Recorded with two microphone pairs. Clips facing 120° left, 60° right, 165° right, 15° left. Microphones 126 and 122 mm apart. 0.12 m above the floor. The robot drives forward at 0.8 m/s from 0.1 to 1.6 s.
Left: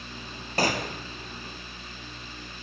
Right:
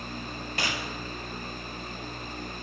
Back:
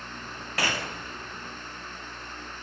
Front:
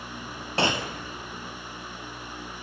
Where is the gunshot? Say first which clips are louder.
Left 8 dB, front 5 dB; 75° left, 0.8 m; by 1.0 s 105° left, 0.8 m.